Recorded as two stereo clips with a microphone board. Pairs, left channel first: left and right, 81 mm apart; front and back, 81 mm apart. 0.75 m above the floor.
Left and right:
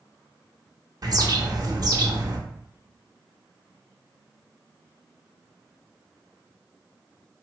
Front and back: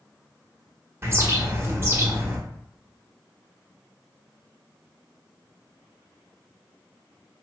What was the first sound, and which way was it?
A bird, 125° right.